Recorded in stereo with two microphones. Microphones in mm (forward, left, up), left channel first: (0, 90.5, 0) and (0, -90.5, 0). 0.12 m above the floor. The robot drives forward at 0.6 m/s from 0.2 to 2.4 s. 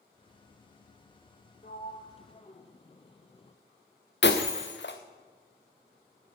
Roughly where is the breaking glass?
Left.